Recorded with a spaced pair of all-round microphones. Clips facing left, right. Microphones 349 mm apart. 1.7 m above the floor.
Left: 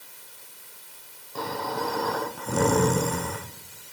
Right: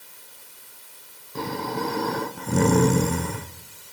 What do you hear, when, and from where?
1.4 s snoring: 35° right (ahead or behind), 1.0 m